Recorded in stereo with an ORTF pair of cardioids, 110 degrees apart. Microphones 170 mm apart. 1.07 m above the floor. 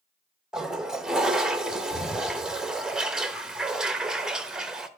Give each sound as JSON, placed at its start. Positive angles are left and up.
{"t": 0.5, "sound": "a toilet flushing", "azimuth_deg": -5, "distance_m": 0.8}